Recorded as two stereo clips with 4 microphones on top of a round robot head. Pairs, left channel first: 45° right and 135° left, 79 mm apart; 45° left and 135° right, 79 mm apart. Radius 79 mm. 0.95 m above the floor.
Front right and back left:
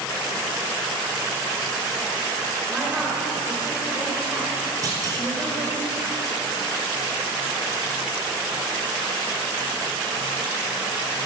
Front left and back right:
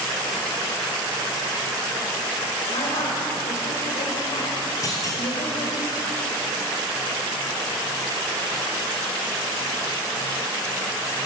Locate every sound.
2.7 s a woman speaking: 60° left, 4 m
4.8 s a clunk: 90° left, 4 m